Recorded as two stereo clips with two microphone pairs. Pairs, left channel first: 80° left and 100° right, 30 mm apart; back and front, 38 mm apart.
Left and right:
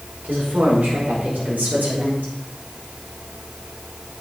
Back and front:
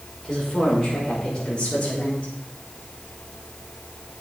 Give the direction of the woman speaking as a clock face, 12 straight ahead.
3 o'clock.